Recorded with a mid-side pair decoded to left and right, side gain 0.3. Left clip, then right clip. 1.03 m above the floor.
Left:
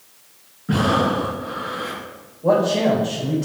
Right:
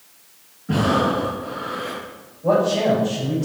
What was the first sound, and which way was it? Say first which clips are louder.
Breathing: even; 65° left.